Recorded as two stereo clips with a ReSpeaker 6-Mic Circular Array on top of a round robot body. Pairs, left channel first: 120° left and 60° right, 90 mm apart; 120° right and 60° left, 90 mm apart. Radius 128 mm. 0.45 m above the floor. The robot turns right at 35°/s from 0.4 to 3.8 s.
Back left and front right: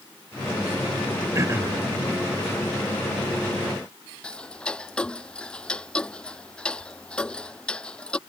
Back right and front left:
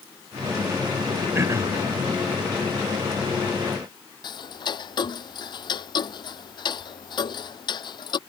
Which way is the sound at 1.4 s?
5° right.